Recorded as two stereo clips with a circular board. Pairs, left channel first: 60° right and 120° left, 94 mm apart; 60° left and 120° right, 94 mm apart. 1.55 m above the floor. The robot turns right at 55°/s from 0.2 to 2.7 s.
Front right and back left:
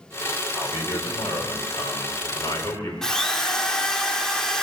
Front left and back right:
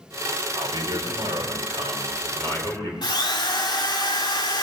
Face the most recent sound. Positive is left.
turn(degrees=25)